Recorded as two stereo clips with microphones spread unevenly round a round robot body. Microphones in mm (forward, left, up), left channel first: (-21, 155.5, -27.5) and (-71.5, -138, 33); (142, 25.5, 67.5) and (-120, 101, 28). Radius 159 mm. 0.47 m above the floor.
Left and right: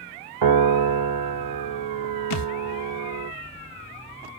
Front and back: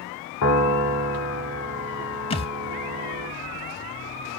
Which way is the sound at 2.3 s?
45° left.